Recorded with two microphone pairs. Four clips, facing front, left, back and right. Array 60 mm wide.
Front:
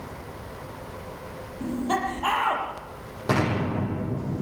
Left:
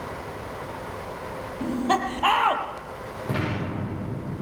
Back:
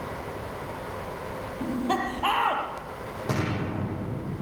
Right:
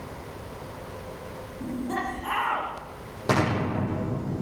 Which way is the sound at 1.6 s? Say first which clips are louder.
Left 6 dB, front 1 dB; 95° left.